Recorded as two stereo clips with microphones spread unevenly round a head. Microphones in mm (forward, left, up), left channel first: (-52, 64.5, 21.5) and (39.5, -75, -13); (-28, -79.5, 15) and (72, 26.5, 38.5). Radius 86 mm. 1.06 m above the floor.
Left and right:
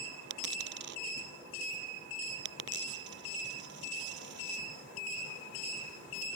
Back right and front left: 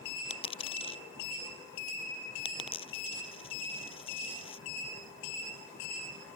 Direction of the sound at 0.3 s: 80° right.